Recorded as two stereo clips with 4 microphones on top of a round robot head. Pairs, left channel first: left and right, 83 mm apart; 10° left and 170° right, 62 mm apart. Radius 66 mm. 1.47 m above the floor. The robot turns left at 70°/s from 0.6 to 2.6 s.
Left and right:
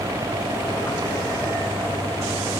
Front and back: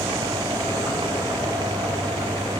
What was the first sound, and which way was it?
Only background noise.